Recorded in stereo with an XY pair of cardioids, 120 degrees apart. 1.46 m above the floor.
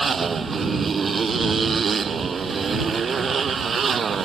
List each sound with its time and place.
0.0 s a motorcycle: 30° right; by 4.3 s 35° right